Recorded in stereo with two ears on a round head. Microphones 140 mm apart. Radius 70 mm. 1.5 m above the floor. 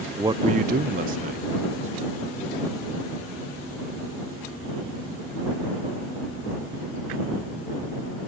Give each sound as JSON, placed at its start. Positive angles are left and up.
{"t": 0.1, "sound": "a man speaking", "side_deg": -15}